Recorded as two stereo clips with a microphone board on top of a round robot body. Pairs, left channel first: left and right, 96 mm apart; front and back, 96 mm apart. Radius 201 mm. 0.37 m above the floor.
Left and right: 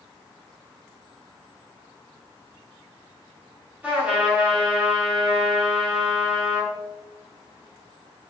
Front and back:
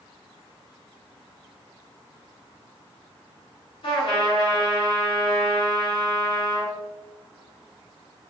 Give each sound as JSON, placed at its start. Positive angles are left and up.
{"t": 3.8, "sound": "a trumpet", "azimuth_deg": -15, "distance_m": 4.0}